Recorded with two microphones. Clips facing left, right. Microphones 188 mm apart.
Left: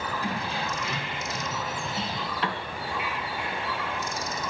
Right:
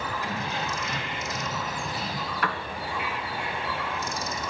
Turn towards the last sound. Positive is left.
turn(degrees=25)  # may be behind; listen again after turning